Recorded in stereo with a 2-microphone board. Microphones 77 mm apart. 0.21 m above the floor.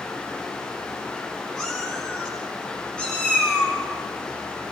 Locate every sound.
1.6 s a cat meowing: 5° left (ahead or behind), 8.5 m; by 3.8 s 15° left (ahead or behind), 6.5 m